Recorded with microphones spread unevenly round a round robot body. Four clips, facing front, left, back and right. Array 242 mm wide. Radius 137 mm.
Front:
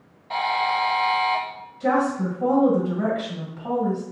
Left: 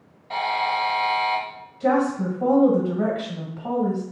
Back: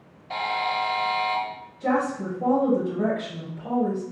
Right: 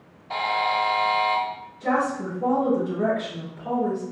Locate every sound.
0.3 s a buzzer: 170° left, 1.2 m
1.8 s a woman speaking: 75° left, 1.6 m